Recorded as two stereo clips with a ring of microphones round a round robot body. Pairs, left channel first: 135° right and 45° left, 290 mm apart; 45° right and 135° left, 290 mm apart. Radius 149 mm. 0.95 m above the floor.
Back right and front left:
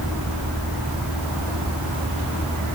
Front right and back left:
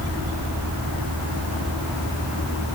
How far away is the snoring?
I don't hear snoring.